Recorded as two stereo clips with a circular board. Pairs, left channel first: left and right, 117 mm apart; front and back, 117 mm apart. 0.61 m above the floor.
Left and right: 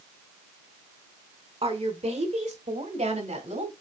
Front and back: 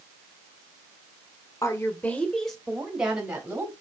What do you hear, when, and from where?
1.6 s a woman speaking: 60° right, 1.6 m; by 3.7 s 105° right, 3 m